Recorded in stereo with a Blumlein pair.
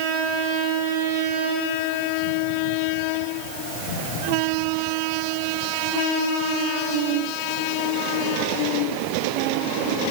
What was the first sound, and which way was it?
Only background noise.